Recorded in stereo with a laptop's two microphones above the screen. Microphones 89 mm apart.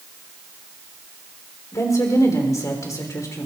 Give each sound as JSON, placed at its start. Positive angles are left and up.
{"t": 1.7, "sound": "a woman speaking", "side_deg": 35, "distance_m": 3.5}